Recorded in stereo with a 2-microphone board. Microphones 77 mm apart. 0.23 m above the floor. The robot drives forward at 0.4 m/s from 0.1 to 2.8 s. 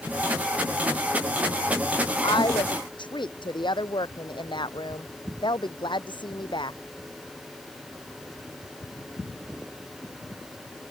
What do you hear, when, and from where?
2.2 s a woman speaking: 75° left (ahead or behind)